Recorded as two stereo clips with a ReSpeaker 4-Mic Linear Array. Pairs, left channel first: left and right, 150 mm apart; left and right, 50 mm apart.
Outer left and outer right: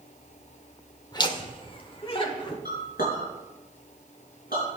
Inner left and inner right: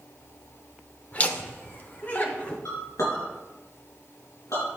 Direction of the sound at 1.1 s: 30° left (ahead or behind).